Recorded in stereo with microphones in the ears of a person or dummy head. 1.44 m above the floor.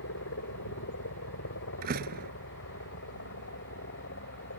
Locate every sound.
0.0 s a helicopter: 65° left (ahead or behind); by 4.6 s 55° left (ahead or behind)
1.8 s a door slam: 45° right (ahead or behind)